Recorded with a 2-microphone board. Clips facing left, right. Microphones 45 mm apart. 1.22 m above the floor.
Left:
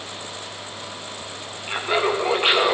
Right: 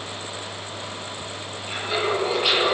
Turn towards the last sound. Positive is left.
turn(degrees=35)  # may be behind; listen again after turning